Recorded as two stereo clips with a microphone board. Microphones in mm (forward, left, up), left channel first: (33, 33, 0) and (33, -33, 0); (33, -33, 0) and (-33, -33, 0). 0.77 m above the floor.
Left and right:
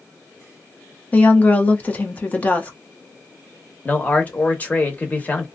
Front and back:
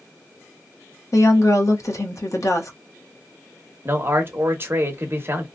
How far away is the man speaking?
About 0.9 m.